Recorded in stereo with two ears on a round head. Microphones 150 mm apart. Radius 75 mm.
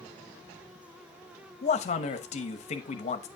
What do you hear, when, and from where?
1.6 s a man speaking: 40° left (ahead or behind), 0.9 m